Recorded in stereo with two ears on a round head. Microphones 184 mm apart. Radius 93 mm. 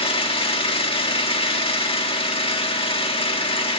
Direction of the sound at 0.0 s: 25° left (ahead or behind).